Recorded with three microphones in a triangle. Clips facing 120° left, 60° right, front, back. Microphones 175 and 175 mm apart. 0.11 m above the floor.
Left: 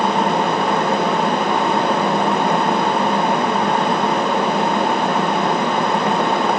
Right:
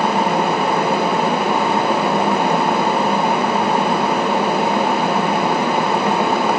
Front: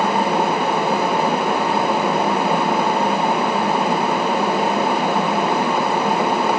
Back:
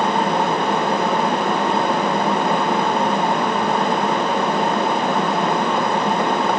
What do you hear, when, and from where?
Only background noise.